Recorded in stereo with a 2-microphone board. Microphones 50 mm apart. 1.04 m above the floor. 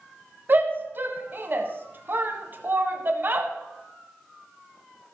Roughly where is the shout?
Right.